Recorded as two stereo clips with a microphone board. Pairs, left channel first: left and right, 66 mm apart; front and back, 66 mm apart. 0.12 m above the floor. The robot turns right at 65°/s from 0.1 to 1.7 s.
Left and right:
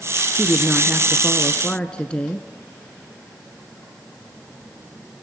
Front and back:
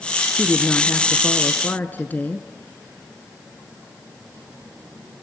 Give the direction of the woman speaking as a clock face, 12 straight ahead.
2 o'clock.